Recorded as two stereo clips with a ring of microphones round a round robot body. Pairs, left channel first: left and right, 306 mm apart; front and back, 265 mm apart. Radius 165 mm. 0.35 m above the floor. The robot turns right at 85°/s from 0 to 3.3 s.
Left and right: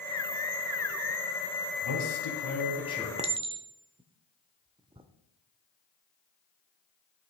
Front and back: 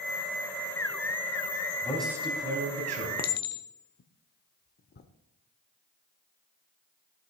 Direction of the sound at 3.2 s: 35° right.